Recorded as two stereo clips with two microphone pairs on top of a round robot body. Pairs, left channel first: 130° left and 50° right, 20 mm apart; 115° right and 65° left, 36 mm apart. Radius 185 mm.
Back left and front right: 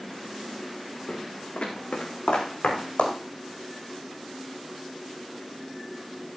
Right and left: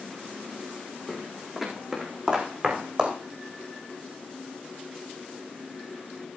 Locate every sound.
1.1 s footsteps: 160° left, 3.5 m; by 3.1 s 135° left, 3.5 m